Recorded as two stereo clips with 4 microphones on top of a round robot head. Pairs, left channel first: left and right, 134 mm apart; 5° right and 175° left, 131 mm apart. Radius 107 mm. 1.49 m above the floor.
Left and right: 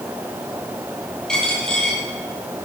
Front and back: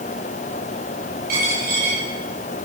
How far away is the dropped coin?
About 7 m.